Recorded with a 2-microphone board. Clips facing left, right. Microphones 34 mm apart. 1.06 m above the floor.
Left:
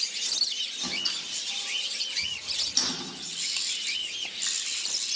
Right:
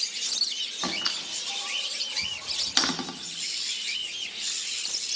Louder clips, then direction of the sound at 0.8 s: Right 1 dB; 55° right (ahead or behind).